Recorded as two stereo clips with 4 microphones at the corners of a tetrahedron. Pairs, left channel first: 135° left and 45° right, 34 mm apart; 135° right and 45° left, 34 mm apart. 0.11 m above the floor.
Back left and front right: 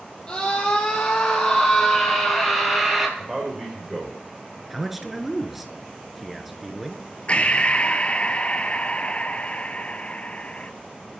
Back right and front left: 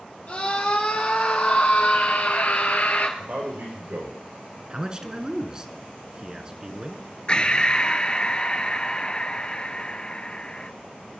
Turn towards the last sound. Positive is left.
turn(degrees=170)